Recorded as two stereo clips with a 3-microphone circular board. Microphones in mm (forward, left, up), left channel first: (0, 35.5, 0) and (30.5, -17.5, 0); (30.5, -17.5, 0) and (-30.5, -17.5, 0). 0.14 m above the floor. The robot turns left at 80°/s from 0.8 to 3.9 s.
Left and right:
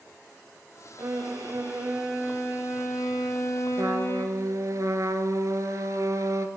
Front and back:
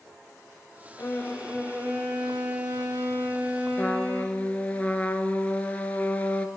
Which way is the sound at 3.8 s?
55° right.